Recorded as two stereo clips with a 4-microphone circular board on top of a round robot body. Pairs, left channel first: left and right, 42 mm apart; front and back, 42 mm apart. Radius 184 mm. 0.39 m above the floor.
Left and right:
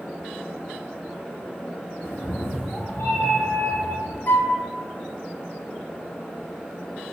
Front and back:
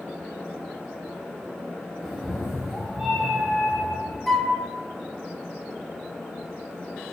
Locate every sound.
2.0 s a cat meowing: 100° left, 1.0 m
4.3 s a flute: 85° left, 0.5 m